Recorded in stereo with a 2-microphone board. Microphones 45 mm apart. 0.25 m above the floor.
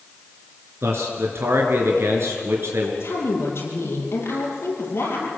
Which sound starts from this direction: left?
A woman speaking, at 3.0 s.